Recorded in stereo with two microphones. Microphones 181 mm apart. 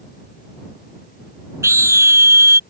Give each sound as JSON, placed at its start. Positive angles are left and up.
{"t": 1.6, "sound": "a scream", "side_deg": -15}